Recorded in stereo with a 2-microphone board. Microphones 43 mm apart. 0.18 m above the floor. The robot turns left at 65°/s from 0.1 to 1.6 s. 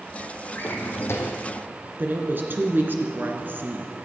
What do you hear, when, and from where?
0.6 s a drawer: 135° left, 1.8 m; by 1.5 s 75° left, 1.8 m
2.0 s a woman speaking: 50° right (ahead or behind), 2 m